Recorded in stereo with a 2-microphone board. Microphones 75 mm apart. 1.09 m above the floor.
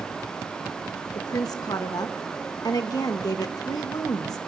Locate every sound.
1.1 s a woman speaking: 55° left (ahead or behind), 1.4 m